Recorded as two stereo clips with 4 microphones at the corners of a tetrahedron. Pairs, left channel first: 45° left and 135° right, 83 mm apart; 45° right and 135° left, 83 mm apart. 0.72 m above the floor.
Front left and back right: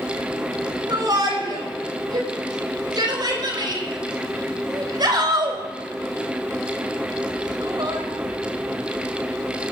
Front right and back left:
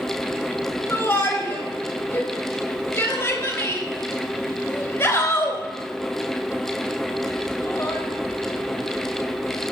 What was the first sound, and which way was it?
A shout, 110° right.